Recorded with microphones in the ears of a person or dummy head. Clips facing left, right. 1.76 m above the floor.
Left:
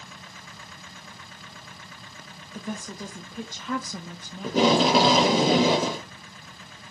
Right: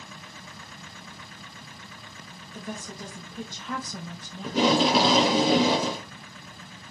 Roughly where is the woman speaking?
Left.